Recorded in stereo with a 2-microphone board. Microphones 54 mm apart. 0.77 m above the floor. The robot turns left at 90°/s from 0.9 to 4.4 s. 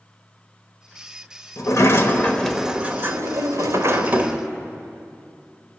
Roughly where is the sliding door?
Left.